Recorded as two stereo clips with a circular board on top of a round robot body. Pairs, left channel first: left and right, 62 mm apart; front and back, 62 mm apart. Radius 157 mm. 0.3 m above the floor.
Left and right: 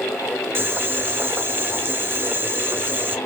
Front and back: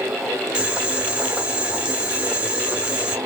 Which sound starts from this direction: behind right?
Boiling, at 0.6 s.